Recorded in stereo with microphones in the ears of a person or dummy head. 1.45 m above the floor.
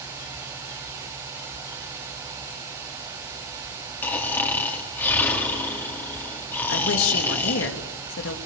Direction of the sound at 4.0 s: 15° left (ahead or behind).